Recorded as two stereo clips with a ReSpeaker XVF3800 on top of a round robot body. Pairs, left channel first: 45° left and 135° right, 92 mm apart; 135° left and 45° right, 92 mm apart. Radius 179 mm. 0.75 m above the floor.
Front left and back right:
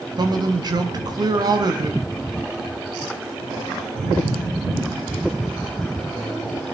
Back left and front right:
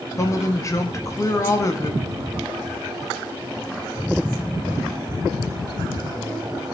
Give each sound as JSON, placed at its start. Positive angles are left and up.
{"t": 0.2, "sound": "a man speaking", "azimuth_deg": -170, "distance_m": 1.8}